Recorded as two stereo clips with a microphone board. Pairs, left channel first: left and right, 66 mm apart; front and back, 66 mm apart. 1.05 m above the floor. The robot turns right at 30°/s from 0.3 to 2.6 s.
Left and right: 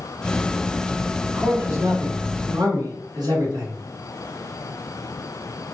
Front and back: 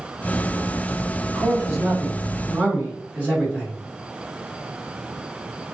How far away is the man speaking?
About 1.5 m.